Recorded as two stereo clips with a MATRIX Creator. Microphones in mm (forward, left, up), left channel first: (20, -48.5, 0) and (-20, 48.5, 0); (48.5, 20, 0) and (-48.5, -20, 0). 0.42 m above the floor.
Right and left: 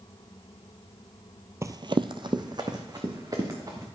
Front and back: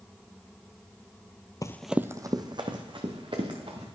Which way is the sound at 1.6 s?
60° left.